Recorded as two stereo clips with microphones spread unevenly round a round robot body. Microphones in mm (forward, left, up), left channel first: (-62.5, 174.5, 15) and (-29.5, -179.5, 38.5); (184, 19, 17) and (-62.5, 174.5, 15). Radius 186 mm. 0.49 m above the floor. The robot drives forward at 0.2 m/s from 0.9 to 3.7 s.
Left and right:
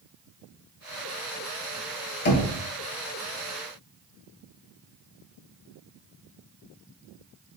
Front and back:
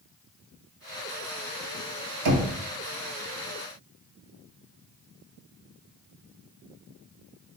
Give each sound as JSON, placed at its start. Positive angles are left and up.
{"t": 2.2, "sound": "knocking", "azimuth_deg": 145, "distance_m": 0.7}